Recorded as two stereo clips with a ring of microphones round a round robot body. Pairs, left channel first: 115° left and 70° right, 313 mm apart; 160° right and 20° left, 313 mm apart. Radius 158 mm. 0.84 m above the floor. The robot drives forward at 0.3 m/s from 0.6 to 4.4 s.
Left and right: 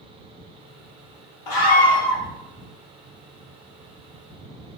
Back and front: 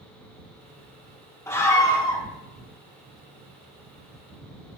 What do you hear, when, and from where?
1.5 s a scream: 120° left, 2.5 m; by 2.2 s 125° left, 2.5 m